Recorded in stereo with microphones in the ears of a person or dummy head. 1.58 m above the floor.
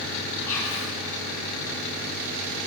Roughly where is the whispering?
Centre.